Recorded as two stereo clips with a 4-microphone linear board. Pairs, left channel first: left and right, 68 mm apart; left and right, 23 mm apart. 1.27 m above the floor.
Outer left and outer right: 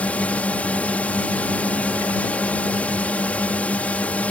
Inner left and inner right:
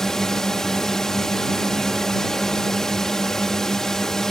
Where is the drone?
20° left (ahead or behind).